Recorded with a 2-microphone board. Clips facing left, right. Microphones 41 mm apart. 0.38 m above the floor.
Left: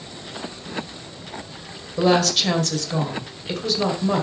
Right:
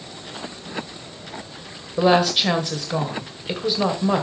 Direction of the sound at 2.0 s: 15° right (ahead or behind).